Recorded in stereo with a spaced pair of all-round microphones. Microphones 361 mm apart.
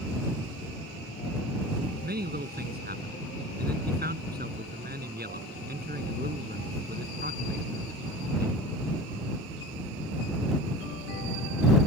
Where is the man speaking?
25° right (ahead or behind).